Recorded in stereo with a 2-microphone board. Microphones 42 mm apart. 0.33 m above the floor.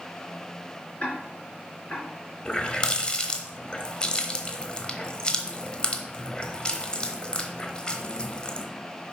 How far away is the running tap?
About 0.9 m.